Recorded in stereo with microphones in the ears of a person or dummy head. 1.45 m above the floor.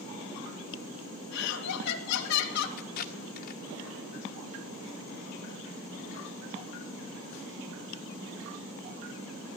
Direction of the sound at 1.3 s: 65° left (ahead or behind).